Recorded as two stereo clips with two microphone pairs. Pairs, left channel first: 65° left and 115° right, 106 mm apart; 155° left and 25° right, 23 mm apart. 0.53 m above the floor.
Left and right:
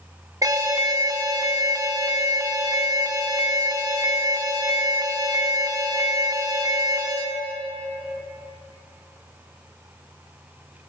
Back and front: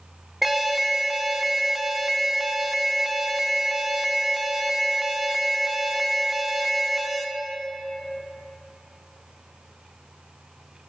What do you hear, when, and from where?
0.4 s an alarm: 105° right, 1.2 m